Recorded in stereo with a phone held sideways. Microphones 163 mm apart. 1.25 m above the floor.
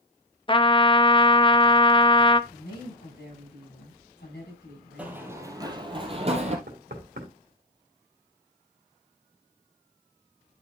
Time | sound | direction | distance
0.5 | a trumpet | 30° left (ahead or behind) | 0.6 m
2.5 | a woman speaking | 90° left | 6.5 m
5.0 | running footsteps | 10° right (ahead or behind) | 2 m
6.7 | knocking | 80° right | 2.5 m